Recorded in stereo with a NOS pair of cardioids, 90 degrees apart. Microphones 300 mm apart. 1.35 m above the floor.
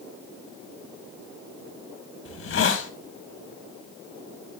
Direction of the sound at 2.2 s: 45° left.